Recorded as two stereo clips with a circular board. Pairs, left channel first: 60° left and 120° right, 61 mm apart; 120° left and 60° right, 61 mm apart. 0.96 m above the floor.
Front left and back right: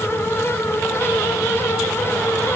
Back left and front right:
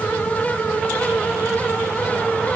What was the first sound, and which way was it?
Only background noise.